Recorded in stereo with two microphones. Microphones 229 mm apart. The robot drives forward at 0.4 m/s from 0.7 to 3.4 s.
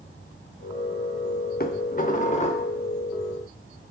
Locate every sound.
1.6 s dishes clattering: 40° left (ahead or behind), 0.6 m; by 2.7 s 25° left (ahead or behind), 0.8 m